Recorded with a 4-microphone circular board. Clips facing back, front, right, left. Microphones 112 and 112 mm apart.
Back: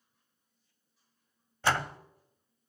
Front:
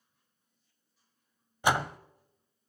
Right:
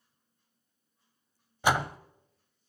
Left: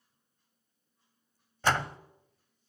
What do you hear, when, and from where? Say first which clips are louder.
1.6 s a door slam: front 2 dB, right 2 dB; 40° right, 0.6 m